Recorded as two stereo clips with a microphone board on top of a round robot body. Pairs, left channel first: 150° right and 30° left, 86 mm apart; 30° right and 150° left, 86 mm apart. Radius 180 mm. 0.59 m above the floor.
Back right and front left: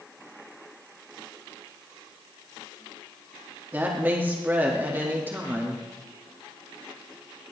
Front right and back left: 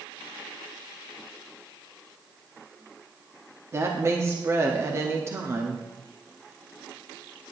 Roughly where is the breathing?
I don't hear breathing.